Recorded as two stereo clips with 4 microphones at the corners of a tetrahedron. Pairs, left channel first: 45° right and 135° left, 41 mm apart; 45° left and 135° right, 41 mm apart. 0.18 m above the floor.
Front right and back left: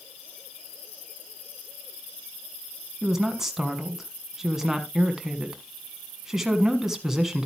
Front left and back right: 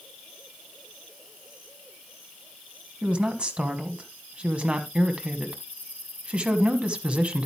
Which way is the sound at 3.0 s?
150° right.